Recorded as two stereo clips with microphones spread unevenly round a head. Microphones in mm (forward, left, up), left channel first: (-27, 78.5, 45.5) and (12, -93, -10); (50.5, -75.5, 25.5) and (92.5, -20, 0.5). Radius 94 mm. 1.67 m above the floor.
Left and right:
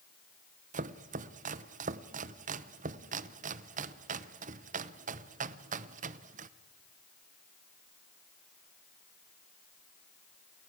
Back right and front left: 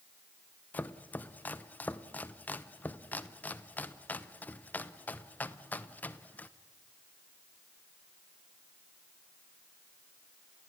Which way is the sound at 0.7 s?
130° right.